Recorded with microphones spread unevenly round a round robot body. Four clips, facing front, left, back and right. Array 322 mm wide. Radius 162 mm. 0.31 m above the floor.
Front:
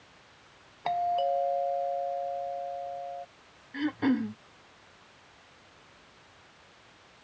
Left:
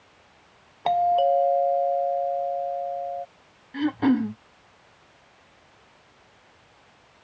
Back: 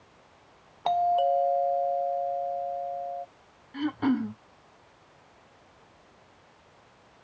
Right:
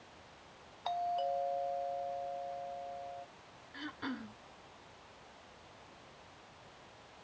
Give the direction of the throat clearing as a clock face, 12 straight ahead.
9 o'clock.